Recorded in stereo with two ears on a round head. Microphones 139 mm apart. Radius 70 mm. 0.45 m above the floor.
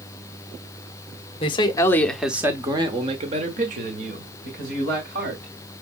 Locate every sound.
1.4 s a man speaking: 35° left (ahead or behind), 0.9 m; by 5.5 s 65° right (ahead or behind), 2.5 m